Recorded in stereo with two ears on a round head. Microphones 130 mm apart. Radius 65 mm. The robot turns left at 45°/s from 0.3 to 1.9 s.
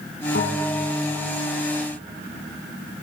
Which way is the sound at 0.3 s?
90° left.